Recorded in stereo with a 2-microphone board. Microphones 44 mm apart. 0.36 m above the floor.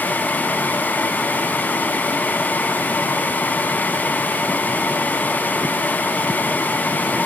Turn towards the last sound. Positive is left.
No sound to turn to.